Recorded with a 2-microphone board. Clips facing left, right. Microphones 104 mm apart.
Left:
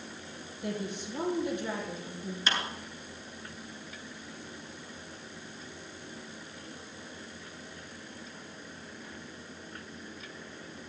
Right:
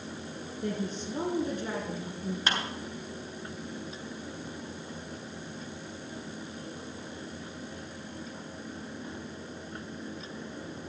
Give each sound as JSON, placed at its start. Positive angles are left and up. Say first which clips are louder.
{"t": 0.6, "sound": "a woman speaking", "louder": "right 2 dB", "side_deg": -40, "distance_m": 5.0}
{"t": 2.5, "sound": "a clap", "louder": "right 1 dB", "side_deg": -50, "distance_m": 3.0}